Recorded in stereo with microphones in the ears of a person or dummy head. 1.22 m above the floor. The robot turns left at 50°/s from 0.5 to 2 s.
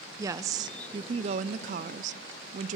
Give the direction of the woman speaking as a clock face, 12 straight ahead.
1 o'clock.